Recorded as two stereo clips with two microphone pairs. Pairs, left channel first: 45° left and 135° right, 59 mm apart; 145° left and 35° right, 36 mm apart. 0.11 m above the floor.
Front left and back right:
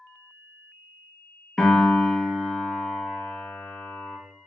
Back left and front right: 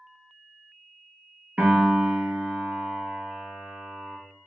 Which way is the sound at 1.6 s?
45° right.